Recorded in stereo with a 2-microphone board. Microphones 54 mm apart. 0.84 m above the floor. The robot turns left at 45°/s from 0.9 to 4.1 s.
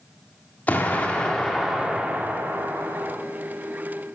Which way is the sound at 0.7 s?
30° left.